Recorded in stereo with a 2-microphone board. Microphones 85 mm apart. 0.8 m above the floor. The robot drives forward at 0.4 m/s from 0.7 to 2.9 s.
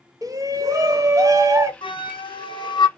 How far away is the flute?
About 0.7 m.